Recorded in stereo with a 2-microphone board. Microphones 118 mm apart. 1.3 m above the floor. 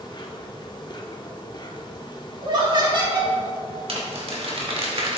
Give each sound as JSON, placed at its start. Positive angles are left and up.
{"t": 0.0, "sound": "an insect", "side_deg": 40, "distance_m": 1.2}
{"t": 2.4, "sound": "laughter", "side_deg": -40, "distance_m": 3.5}
{"t": 3.9, "sound": "crumpling", "side_deg": -55, "distance_m": 2.0}